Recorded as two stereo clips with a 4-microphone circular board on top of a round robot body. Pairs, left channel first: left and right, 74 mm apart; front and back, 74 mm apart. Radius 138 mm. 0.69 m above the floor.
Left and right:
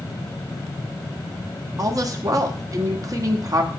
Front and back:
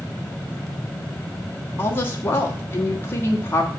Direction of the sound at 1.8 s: 55° right.